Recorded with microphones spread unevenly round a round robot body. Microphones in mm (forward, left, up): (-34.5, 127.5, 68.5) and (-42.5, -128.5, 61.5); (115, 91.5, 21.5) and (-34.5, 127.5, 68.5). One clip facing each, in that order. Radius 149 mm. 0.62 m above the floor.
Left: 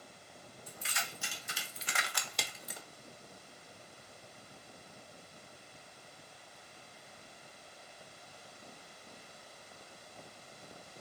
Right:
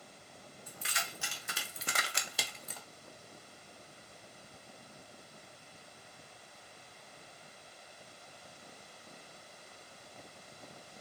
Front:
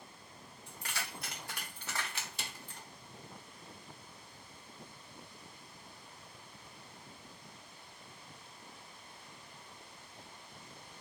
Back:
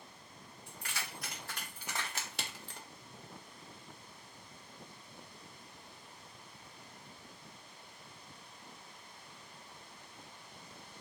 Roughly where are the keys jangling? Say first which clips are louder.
Even, front 1 dB; ahead right.